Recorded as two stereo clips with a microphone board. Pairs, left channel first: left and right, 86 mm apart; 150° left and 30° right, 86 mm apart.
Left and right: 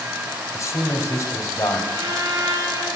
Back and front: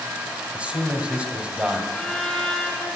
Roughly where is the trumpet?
Behind right.